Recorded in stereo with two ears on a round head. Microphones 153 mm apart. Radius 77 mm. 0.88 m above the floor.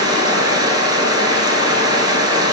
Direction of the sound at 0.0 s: 25° right (ahead or behind).